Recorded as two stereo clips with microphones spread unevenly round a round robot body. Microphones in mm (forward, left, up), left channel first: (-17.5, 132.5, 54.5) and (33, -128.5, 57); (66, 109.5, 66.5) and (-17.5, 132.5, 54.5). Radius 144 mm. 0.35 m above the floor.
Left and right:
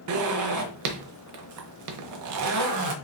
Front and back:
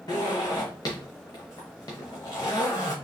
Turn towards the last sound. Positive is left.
turn(degrees=-70)